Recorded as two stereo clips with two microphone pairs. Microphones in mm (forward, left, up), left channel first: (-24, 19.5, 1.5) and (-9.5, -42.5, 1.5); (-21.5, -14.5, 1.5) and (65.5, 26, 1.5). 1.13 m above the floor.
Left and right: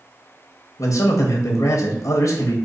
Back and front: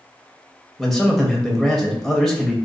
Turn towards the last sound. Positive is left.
turn(degrees=115)